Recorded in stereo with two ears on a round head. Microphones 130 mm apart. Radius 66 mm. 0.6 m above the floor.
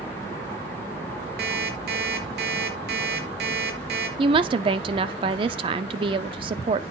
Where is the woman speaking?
35° right (ahead or behind), 0.7 m.